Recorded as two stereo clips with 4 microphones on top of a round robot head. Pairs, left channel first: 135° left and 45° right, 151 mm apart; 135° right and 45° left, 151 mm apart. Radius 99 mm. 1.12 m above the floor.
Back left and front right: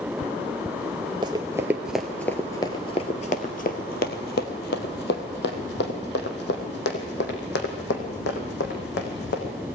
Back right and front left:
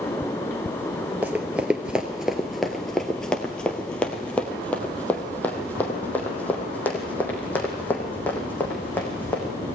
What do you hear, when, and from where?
1.2 s running footsteps: 20° right, 1.1 m; by 9.5 s 150° left, 4 m